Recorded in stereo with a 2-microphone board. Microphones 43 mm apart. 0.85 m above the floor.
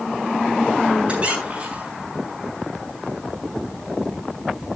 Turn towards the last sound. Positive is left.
turn(degrees=-30)  # may be behind; listen again after turning